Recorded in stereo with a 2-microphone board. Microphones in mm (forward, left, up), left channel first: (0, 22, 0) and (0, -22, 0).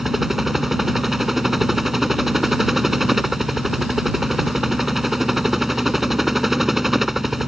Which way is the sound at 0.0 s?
5° right (ahead or behind).